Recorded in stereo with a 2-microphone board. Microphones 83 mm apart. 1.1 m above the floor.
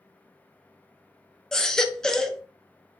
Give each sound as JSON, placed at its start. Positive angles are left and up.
{"t": 1.5, "sound": "a baby crying", "side_deg": 5, "distance_m": 0.5}